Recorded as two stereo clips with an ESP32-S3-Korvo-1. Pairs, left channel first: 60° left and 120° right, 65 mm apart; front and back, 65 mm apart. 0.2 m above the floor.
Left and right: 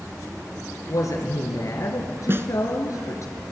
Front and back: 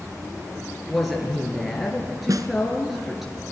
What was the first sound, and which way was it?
A woman speaking, 95° left.